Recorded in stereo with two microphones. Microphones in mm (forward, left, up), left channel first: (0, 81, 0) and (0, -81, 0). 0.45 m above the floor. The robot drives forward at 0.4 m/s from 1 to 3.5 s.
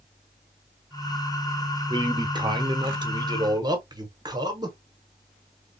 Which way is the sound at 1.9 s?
25° right (ahead or behind).